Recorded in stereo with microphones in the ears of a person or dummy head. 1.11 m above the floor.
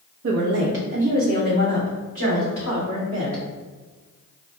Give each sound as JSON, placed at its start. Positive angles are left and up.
{"t": 0.2, "sound": "a woman speaking", "side_deg": -70, "distance_m": 0.7}